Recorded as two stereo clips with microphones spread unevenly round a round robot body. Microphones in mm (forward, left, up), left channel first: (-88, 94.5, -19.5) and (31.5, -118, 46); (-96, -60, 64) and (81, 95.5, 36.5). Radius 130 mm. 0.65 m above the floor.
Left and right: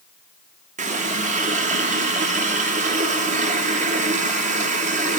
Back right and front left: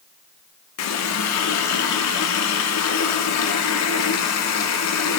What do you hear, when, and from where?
0.8 s a running tap: 130° right, 0.8 m